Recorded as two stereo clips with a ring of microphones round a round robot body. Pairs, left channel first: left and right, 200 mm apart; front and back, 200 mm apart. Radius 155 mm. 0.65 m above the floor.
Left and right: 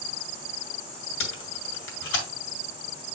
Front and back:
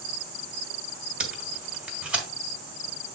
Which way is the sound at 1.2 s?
95° left.